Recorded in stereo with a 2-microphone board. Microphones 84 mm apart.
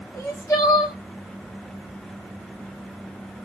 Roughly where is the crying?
Left.